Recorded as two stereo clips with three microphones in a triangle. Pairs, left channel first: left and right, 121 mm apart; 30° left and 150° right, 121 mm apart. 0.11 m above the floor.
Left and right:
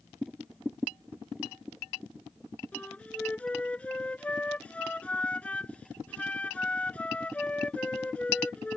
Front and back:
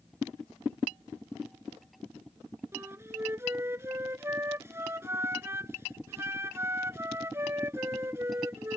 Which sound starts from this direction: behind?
A flute, at 2.7 s.